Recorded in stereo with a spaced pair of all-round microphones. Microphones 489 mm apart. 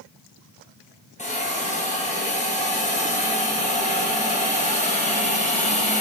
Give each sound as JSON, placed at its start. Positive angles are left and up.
{"t": 1.2, "sound": "a hiss", "side_deg": 15, "distance_m": 1.2}